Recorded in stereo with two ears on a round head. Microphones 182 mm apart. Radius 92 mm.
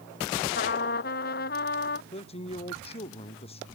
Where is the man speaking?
30° left (ahead or behind).